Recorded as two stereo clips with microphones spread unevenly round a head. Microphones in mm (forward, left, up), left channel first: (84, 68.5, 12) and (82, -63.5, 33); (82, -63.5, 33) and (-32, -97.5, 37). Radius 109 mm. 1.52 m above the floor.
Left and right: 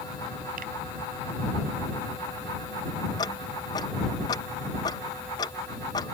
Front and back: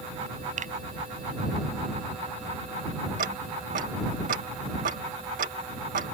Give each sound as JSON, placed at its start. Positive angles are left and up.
{"t": 0.6, "sound": "a finger snap", "azimuth_deg": -145}
{"t": 3.2, "sound": "ticking", "azimuth_deg": 160}